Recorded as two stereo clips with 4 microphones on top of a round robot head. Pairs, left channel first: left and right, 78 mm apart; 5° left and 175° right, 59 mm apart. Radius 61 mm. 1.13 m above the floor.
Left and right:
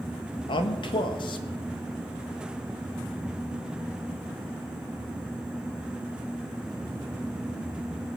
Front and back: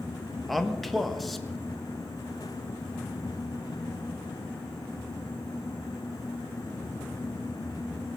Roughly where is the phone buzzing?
No phone buzzing in this recording.